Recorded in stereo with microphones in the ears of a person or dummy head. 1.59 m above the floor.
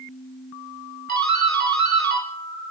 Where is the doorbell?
50° right (ahead or behind), 1.7 m.